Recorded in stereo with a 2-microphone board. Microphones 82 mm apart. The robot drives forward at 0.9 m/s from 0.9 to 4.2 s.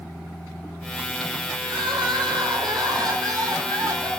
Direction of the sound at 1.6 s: 80° right.